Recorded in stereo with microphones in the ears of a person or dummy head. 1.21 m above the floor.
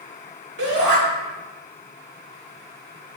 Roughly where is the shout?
Right.